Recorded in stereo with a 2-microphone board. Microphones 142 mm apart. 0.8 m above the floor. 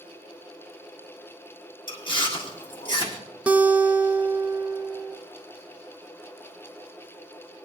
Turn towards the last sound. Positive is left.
turn(degrees=-10)  # may be behind; listen again after turning